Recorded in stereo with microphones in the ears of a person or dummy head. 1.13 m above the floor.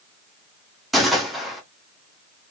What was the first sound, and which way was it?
A gunshot, centre (ahead or behind).